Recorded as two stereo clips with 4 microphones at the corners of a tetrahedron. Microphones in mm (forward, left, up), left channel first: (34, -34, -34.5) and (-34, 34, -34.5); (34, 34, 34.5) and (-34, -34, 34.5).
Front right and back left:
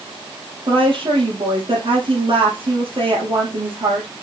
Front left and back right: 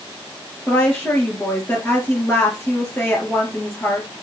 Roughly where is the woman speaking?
Left.